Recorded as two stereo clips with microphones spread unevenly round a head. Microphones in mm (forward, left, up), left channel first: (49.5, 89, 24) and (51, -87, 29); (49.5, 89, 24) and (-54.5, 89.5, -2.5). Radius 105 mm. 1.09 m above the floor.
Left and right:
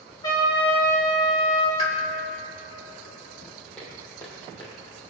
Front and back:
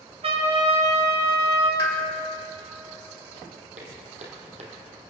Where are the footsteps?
175° left, 2.5 m; by 5.0 s 150° left, 2 m.